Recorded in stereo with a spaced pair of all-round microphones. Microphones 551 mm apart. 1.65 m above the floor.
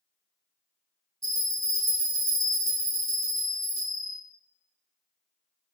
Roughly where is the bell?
Right.